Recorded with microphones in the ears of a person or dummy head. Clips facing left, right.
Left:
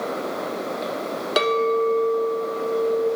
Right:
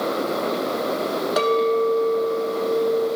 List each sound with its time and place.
1.4 s a clink: 40° left (ahead or behind), 1.0 m